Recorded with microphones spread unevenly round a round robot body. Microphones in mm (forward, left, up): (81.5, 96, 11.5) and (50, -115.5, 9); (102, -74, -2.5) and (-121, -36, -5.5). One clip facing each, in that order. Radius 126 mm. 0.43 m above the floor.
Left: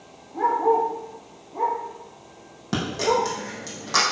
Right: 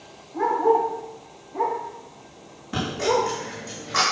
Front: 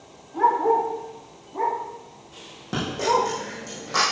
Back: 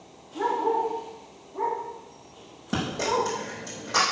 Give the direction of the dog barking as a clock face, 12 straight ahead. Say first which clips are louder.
Right 1 dB, front 4 dB; 12 o'clock.